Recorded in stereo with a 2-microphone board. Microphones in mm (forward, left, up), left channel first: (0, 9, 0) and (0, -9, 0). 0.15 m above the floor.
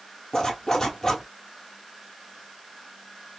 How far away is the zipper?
About 1.2 m.